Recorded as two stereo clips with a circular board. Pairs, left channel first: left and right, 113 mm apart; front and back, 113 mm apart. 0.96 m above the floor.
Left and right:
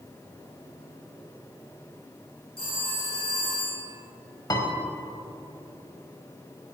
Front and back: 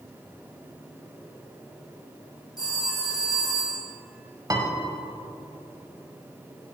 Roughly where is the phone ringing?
Ahead left.